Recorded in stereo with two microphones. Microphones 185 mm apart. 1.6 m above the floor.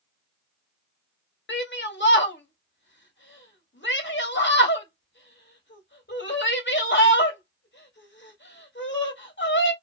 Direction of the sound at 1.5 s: 85° left.